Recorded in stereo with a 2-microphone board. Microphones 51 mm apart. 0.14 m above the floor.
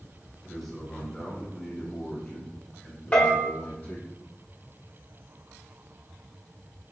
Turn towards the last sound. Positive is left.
turn(degrees=30)  # may be behind; listen again after turning